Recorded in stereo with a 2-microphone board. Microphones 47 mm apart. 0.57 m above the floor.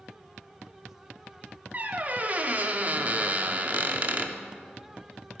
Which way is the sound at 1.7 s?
35° right (ahead or behind).